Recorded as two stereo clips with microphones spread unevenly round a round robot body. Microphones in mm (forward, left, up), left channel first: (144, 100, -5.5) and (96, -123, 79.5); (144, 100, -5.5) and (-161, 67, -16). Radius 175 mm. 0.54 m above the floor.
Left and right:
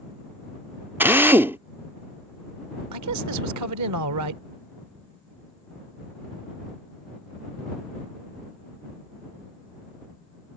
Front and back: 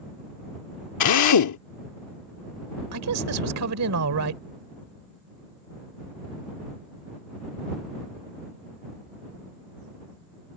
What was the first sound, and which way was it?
A drill, 5° right.